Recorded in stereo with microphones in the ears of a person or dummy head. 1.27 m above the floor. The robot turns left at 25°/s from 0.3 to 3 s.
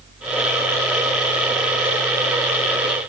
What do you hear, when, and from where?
Only background noise.